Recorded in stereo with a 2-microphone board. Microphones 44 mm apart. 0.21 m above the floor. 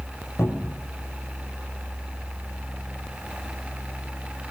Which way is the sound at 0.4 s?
70° left (ahead or behind).